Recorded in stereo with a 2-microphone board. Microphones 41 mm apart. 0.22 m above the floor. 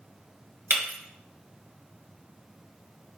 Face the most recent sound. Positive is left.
turn(degrees=-60)  # may be behind; listen again after turning